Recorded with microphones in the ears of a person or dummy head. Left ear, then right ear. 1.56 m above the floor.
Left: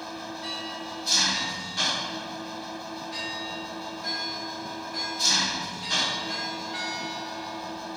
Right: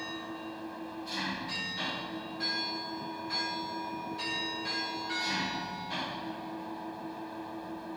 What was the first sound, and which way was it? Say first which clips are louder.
An engine running: left 4 dB; 50° left (ahead or behind).